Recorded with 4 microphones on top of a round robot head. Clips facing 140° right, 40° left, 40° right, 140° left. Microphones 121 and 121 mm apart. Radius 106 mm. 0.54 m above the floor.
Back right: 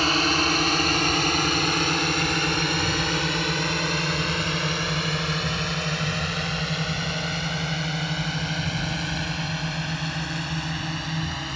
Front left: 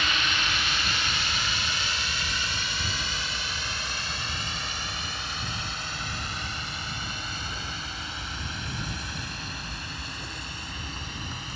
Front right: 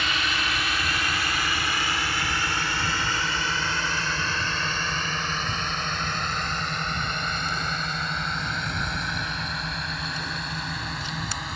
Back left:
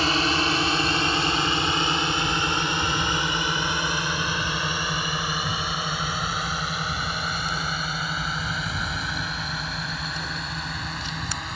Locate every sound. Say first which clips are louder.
0.0 s a drone: back right 8 dB, back left 6 dB; 175° right; by 11.6 s 130° right